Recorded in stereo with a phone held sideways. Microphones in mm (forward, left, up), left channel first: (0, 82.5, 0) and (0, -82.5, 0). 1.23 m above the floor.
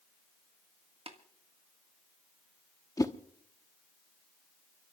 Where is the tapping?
35° right (ahead or behind), 1.6 m.